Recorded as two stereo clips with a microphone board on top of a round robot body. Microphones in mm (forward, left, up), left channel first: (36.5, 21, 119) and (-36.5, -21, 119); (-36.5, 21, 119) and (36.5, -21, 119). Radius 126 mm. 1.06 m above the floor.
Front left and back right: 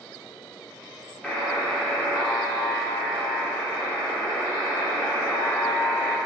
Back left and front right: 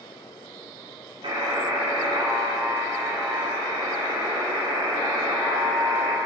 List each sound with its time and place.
1.2 s a buzzer: 50° right, 2.5 m